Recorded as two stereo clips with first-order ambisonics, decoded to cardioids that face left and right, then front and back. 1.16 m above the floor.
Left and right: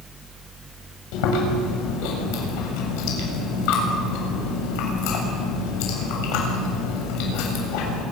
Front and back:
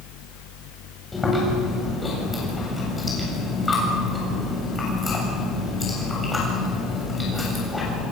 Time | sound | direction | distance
1.1 | chewing | 80° left | 7.5 m